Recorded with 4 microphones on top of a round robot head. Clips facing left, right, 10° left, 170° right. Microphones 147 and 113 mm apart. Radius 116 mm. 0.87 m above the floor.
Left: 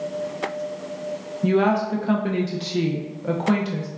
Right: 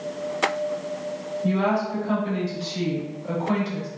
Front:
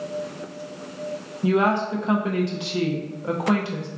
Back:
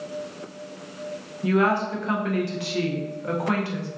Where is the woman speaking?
75° left, 1.0 m.